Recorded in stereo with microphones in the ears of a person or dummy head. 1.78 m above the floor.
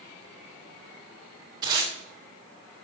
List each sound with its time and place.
1.6 s tape being pulled: 20° right (ahead or behind), 1.6 m